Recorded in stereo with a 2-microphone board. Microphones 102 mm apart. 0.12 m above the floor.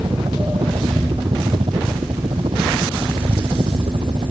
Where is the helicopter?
60° right (ahead or behind).